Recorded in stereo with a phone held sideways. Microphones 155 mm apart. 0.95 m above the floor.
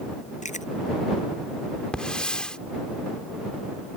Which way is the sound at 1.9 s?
5° left (ahead or behind).